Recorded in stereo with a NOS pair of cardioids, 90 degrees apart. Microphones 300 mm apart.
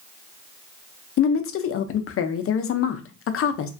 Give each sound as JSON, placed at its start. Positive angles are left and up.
{"t": 1.2, "sound": "a woman speaking", "azimuth_deg": 50, "distance_m": 0.6}